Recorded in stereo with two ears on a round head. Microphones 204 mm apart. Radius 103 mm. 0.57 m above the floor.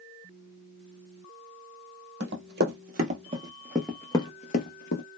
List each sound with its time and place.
2.2 s running footsteps: 50° right (ahead or behind), 1.0 m; by 5.0 s 50° left (ahead or behind), 0.8 m